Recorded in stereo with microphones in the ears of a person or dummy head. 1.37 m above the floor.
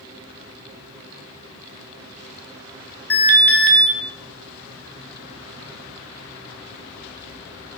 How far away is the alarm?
About 0.7 m.